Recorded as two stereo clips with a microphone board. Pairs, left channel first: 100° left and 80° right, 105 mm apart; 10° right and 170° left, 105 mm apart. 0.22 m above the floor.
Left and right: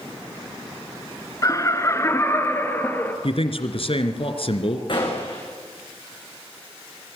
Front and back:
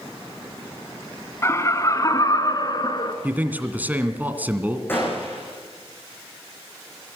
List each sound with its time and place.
1.4 s laughter: 50° left, 2 m; by 3.1 s 30° left, 3 m
3.2 s a man speaking: 100° left, 2 m
4.9 s a gunshot: 60° left, 6.5 m